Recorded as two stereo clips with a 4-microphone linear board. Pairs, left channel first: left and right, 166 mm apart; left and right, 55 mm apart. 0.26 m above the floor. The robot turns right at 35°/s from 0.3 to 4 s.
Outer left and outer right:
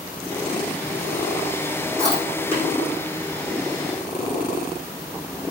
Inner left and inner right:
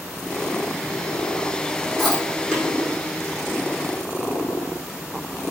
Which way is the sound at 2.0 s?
5° left (ahead or behind).